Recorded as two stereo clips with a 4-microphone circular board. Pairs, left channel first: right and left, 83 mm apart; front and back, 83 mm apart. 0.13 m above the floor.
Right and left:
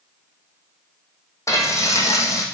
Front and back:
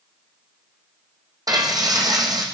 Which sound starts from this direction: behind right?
Frying, at 1.5 s.